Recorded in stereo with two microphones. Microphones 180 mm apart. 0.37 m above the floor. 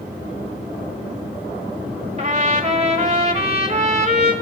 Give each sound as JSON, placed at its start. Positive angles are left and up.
{"t": 2.2, "sound": "a trumpet", "side_deg": -40, "distance_m": 1.4}